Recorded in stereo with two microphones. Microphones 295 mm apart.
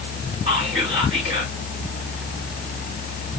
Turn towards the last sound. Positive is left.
turn(degrees=-20)  # may be behind; listen again after turning